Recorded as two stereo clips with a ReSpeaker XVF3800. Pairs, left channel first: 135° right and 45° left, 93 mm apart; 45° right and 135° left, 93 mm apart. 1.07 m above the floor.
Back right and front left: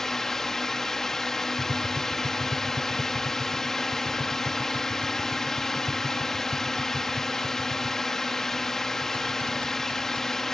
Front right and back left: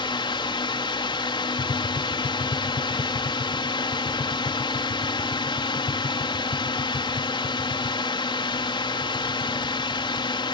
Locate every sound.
0.0 s a drone: 50° right
1.6 s tapping: 25° right